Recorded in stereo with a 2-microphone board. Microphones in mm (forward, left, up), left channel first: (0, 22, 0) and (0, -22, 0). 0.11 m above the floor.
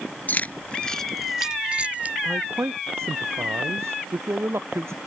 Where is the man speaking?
80° right.